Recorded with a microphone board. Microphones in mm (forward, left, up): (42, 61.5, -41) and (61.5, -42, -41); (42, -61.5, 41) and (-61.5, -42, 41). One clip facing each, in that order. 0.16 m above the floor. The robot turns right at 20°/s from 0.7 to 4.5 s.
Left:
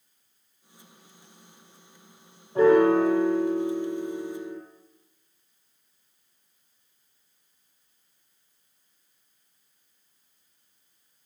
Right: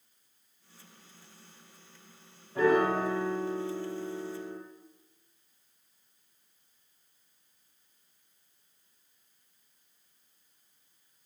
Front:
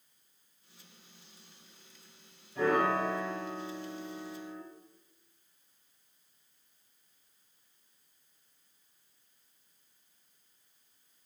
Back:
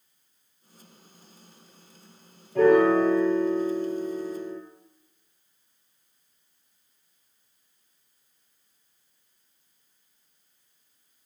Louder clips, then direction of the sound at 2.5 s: Left 7 dB, back 11 dB; 160° left.